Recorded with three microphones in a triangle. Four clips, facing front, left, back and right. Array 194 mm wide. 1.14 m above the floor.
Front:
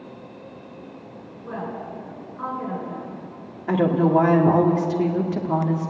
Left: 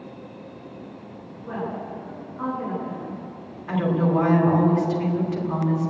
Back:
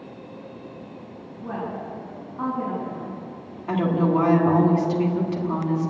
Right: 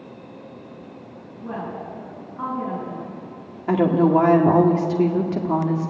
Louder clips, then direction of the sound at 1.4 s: Even, back 1 dB; 155° right.